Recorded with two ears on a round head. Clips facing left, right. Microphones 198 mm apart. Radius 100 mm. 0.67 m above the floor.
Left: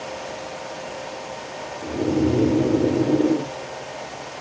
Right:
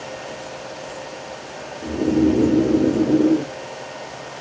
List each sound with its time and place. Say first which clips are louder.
1.8 s snoring: right 4 dB; 10° right (ahead or behind), 0.6 m